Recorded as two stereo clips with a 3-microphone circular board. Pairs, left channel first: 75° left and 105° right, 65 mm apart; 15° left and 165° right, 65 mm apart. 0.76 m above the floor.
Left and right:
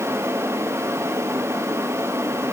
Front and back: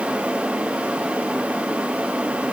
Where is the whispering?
No whispering in this recording.